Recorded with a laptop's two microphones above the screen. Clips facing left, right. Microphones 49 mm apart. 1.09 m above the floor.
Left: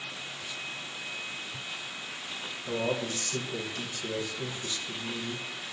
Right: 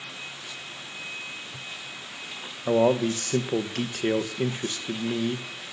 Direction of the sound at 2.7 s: 65° right (ahead or behind).